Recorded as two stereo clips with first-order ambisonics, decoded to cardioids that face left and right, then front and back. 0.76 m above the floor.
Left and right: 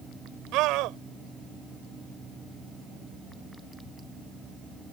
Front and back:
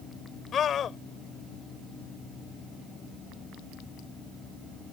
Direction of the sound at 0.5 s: 60° right.